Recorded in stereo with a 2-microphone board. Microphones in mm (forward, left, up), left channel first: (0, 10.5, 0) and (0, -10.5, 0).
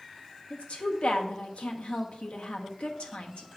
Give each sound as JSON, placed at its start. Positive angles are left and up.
{"t": 0.5, "sound": "a woman speaking", "side_deg": 70, "distance_m": 0.9}